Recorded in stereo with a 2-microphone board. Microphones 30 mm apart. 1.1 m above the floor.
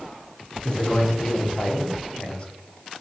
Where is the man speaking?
35° left (ahead or behind), 0.8 m.